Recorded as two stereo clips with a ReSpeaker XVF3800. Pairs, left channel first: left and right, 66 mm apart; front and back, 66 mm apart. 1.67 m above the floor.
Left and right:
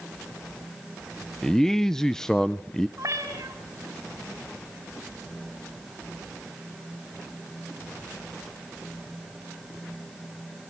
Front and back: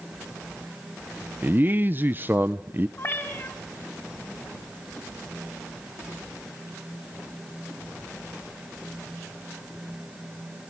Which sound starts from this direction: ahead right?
A cat meowing, at 3.0 s.